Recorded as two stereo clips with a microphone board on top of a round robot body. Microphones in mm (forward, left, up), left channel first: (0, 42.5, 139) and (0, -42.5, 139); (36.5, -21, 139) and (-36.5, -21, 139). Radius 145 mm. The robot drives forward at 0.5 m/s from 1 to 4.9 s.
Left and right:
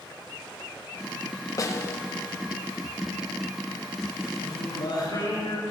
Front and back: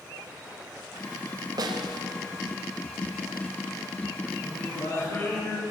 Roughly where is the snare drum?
Behind left.